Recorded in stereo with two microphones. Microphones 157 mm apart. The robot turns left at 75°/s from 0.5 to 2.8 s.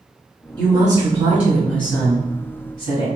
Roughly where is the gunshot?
I don't hear a gunshot.